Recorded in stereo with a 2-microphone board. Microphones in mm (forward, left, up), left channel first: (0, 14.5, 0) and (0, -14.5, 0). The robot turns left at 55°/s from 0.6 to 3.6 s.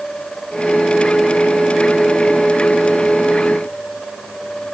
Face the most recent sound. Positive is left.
No sound to turn to.